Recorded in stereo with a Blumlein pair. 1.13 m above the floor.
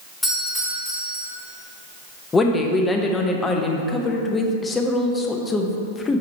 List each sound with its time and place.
0.2 s a doorbell: straight ahead, 2.5 m
2.3 s a woman speaking: 15° left, 0.9 m